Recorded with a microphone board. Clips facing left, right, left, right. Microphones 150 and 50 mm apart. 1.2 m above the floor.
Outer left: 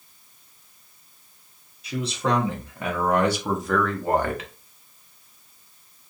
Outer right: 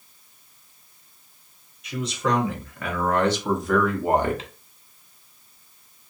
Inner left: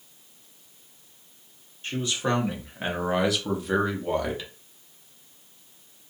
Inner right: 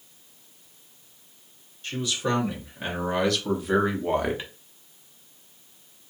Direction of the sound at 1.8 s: 30° left (ahead or behind).